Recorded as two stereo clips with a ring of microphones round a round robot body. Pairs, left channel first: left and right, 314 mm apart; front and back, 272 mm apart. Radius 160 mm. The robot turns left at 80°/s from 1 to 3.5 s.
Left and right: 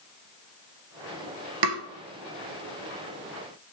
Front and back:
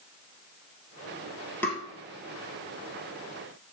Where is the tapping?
85° right, 1.1 m; by 1.8 s 100° right, 1.1 m.